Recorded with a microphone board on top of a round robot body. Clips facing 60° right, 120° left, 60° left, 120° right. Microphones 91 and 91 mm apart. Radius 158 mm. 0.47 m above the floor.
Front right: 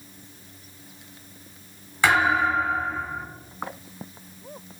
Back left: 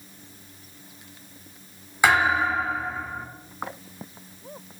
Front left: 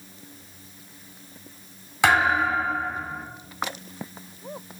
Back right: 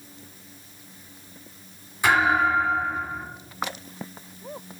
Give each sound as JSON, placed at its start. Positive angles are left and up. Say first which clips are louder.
{"t": 2.0, "sound": "a thud", "louder": "even, even", "azimuth_deg": 45, "distance_m": 1.7}